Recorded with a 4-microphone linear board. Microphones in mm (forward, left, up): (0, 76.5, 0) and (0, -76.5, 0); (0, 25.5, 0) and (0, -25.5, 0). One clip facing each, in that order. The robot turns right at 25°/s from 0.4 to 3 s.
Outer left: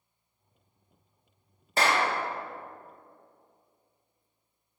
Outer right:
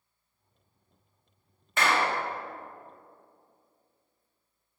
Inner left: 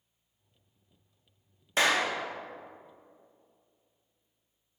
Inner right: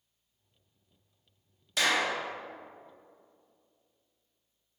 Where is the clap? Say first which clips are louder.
Outer left 1 dB, inner left 2 dB; 35° left (ahead or behind), 1.2 m; by 2.1 s 40° left (ahead or behind), 1.2 m.